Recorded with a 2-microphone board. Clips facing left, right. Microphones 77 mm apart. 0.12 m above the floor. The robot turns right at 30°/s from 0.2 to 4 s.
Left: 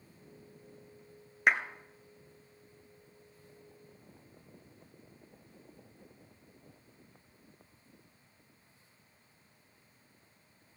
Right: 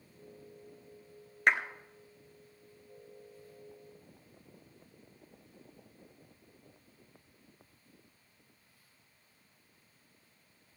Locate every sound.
1.5 s a clap: 5° left (ahead or behind), 1.2 m